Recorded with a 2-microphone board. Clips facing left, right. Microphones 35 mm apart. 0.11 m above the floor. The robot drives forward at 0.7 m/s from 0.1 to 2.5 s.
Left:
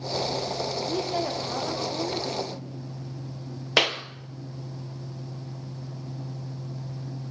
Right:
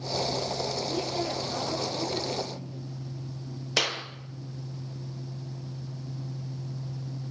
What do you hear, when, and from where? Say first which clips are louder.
0.8 s a woman speaking: left 3 dB; 40° left (ahead or behind), 5.5 m; by 2.7 s 35° left (ahead or behind), 6.5 m
3.8 s a clap: left 5 dB; 35° left (ahead or behind), 1.8 m